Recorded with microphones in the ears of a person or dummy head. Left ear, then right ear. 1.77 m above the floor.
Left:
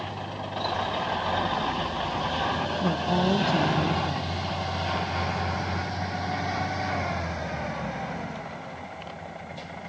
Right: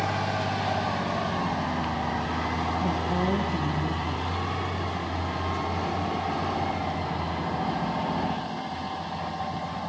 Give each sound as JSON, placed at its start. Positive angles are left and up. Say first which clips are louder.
{"t": 2.8, "sound": "a woman speaking", "louder": "left 1 dB", "side_deg": 60, "distance_m": 2.0}